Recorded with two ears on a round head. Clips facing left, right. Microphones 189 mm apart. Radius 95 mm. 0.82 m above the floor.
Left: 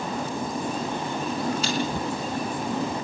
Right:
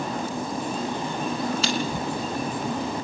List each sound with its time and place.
1.6 s chewing: 60° right (ahead or behind), 3.5 m